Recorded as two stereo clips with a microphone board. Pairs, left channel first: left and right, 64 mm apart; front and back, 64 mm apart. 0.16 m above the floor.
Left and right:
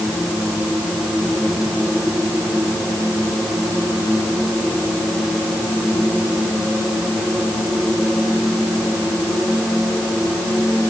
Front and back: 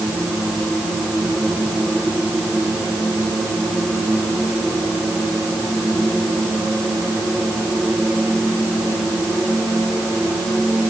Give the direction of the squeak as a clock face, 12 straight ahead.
No squeak in this recording.